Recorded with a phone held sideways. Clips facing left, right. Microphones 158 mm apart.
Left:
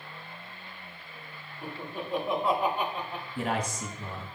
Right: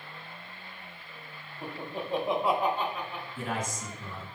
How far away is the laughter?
About 2 m.